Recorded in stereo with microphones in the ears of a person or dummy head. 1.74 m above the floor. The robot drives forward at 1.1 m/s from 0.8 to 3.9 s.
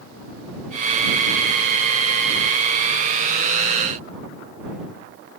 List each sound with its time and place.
Only background noise.